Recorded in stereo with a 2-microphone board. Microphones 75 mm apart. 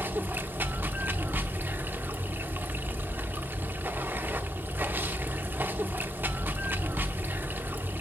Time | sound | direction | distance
0.0 | running water | 25° right (ahead or behind) | 0.9 m